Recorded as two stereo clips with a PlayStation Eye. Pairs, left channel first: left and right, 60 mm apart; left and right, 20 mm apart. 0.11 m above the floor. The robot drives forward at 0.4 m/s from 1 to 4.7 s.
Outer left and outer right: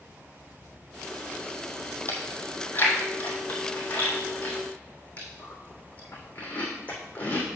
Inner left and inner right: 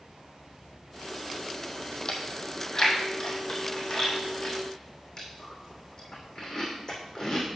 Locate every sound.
2.1 s chewing: 40° left (ahead or behind), 1.8 m; by 7.6 s 25° left (ahead or behind), 2.5 m